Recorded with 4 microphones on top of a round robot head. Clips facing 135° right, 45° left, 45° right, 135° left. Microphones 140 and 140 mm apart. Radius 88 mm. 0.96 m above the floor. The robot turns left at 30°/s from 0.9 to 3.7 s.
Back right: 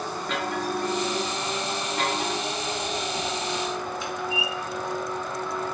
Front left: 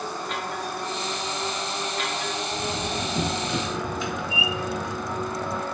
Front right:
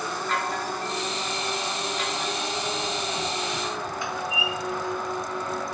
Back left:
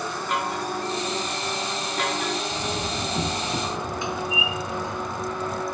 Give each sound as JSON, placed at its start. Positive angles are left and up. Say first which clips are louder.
{"t": 0.3, "sound": "a chime", "louder": "back right 3 dB, back left 2 dB", "azimuth_deg": -150}
{"t": 2.5, "sound": "a door slam", "louder": "front left 1 dB, back left 1 dB", "azimuth_deg": 100}